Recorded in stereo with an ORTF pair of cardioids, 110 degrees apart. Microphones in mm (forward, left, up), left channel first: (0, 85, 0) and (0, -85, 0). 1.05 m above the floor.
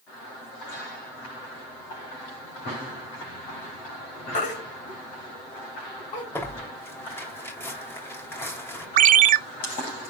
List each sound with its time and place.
4.3 s a baby crying: 55° left, 4.5 m
6.3 s tearing paper: 15° left, 3 m
9.0 s a ringtone: 55° right, 0.6 m